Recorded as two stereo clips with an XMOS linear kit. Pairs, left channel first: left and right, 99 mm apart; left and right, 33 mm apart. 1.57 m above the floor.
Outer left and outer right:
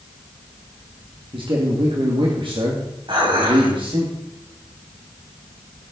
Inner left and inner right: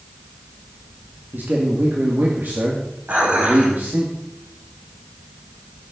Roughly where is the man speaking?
Right.